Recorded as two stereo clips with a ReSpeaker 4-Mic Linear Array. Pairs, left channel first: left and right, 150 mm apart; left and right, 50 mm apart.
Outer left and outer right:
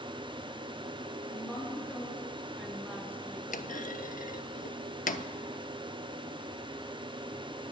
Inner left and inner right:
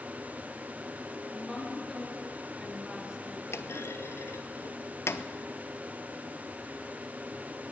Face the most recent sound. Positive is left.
turn(degrees=65)  # may be behind; listen again after turning